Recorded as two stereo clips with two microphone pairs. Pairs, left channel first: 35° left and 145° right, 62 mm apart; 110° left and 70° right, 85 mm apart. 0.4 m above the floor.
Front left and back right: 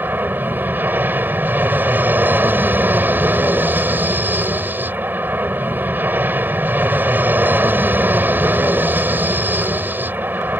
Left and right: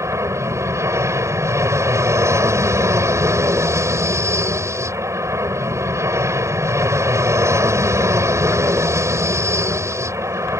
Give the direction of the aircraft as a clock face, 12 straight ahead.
3 o'clock.